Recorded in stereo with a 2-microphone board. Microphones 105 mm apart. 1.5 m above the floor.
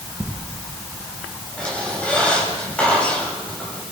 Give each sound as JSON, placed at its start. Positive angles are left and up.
{"t": 1.6, "sound": "a squeak", "side_deg": 10, "distance_m": 7.0}